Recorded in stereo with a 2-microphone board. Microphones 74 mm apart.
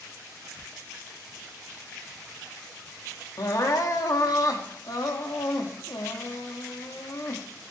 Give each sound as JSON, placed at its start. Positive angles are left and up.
{"t": 3.4, "sound": "crying", "side_deg": 55, "distance_m": 1.3}